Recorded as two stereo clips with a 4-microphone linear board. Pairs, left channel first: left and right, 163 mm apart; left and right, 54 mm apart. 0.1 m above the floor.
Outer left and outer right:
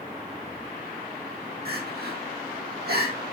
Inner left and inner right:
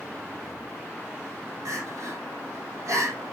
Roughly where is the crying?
Right.